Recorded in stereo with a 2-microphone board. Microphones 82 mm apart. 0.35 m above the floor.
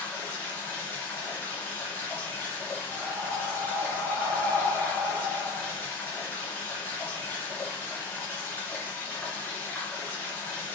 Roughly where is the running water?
Left.